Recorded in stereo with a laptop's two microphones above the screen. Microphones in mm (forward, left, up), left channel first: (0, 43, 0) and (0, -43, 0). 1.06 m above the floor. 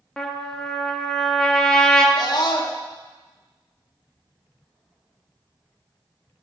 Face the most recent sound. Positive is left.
turn(degrees=50)  # may be behind; listen again after turning